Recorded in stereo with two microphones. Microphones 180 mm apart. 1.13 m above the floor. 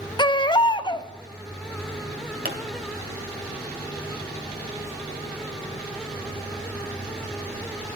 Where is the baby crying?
25° left (ahead or behind), 0.6 m.